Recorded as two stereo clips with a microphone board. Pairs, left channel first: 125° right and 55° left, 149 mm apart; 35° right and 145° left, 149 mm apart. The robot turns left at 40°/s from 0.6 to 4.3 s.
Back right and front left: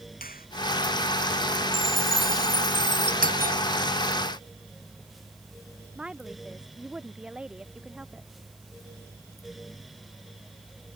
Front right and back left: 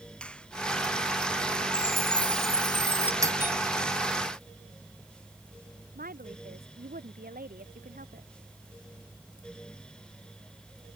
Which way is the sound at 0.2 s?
115° right.